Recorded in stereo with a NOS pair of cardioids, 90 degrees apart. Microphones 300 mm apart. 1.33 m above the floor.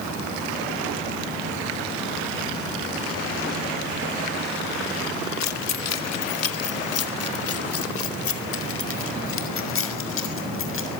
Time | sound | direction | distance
5.4 | keys jangling | 65° left | 1.9 m